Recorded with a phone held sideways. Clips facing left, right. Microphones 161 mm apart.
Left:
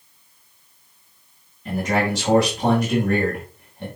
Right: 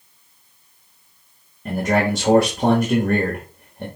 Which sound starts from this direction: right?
A man speaking, at 1.6 s.